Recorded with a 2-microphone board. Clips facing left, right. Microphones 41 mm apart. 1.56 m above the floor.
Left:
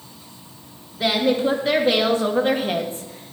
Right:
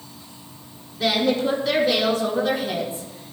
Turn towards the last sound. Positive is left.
turn(degrees=60)  # may be behind; listen again after turning